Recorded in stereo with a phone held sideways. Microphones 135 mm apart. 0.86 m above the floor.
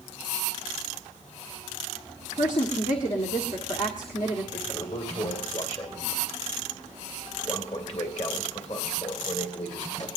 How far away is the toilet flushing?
About 2 m.